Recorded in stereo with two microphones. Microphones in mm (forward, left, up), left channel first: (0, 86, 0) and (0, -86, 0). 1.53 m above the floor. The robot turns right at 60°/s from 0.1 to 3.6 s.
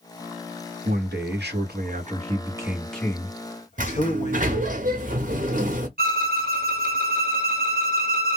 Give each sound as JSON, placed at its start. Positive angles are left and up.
{"t": 0.8, "sound": "a man speaking", "azimuth_deg": -120, "distance_m": 1.0}
{"t": 3.8, "sound": "a sliding door", "side_deg": -50, "distance_m": 0.8}
{"t": 6.0, "sound": "a violin", "side_deg": -60, "distance_m": 1.0}